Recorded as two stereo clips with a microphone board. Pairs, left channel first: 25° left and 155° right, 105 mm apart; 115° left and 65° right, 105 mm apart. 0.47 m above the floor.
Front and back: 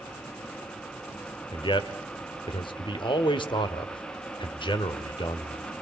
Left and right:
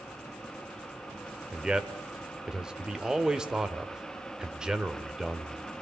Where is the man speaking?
15° left, 1.6 m.